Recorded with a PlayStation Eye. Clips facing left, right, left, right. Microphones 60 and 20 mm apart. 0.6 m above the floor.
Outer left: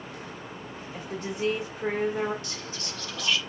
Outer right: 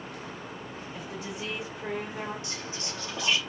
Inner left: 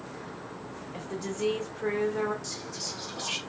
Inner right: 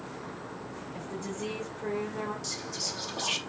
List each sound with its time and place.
0.9 s a woman speaking: 45° left (ahead or behind), 2 m
2.4 s whispering: 20° right (ahead or behind), 0.6 m